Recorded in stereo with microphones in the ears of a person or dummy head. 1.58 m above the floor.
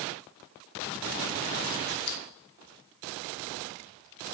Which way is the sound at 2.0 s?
80° left.